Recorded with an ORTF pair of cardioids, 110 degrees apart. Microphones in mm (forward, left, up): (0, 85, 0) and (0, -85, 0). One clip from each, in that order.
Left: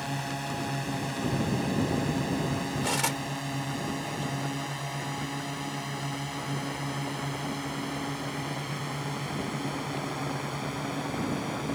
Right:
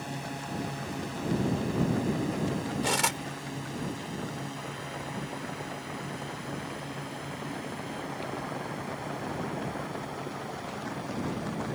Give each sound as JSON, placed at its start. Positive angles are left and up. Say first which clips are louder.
{"t": 0.0, "sound": "a drone", "louder": "left 4 dB", "azimuth_deg": 30}
{"t": 2.8, "sound": "cutlery clinking", "louder": "right 2 dB", "azimuth_deg": -10}